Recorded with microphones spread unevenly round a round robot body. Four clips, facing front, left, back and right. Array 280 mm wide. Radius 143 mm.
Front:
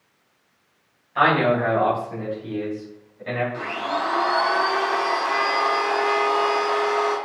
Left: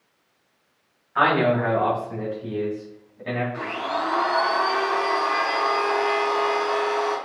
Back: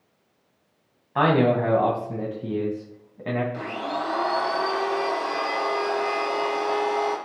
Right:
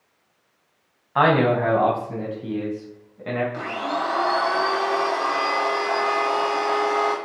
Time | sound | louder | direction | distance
1.1 | a man speaking | right 2 dB, front 1 dB | 140° right | 3 m
3.5 | a blender | right 1 dB, front 3 dB | 140° right | 3 m